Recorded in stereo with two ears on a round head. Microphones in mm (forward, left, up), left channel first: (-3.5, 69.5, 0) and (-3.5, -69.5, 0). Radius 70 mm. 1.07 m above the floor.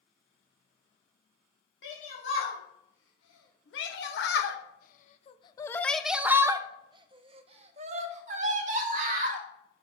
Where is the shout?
80° left, 2 m; by 9.4 s 50° right (ahead or behind), 2.5 m.